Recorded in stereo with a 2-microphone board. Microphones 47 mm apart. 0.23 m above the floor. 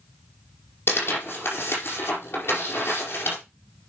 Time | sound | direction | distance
0.9 | tearing paper | 60° left (ahead or behind) | 4.5 m